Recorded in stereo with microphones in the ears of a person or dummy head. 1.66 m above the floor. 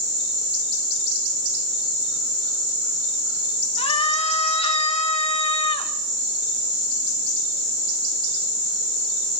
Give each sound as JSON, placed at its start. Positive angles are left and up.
{"t": 3.8, "sound": "a scream", "side_deg": 30, "distance_m": 2.0}